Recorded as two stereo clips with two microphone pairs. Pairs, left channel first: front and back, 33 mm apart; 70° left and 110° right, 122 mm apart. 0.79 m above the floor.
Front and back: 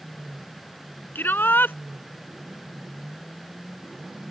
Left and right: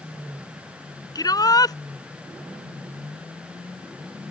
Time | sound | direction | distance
1.1 | a shout | 10° left | ?